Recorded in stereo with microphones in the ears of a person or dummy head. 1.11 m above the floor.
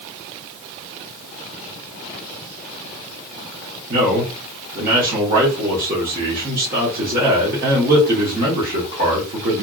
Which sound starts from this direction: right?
A man speaking, at 3.9 s.